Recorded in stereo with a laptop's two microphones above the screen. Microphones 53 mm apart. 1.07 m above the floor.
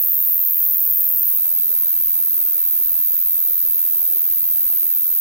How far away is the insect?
About 1.9 m.